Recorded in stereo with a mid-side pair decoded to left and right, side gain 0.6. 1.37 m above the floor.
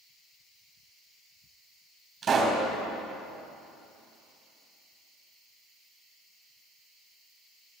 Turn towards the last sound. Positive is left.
turn(degrees=-40)